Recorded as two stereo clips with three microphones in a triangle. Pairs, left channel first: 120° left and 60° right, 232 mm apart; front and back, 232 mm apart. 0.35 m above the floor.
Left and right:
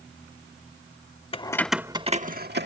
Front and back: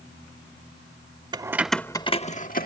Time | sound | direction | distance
1.3 | keys jangling | 140° left | ?